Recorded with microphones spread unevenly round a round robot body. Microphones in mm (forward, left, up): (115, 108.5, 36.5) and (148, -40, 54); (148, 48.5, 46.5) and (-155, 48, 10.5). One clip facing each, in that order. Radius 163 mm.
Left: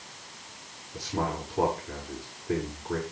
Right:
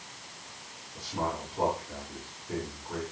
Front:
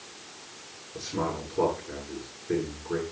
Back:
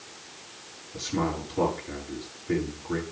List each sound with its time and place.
0.9 s a man speaking: 170° left, 6.5 m